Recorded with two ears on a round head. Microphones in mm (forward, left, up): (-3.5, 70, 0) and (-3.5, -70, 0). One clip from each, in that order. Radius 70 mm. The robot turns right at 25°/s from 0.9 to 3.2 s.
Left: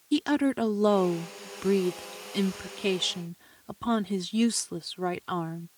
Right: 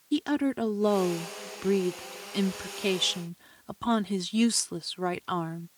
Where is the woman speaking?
150° left; by 5.7 s 150° right.